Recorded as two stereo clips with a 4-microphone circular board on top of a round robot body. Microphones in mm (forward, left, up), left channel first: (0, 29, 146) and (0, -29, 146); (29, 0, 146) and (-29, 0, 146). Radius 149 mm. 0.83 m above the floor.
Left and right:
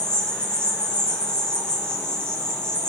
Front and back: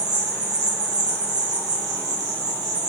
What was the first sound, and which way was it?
An insect, 165° left.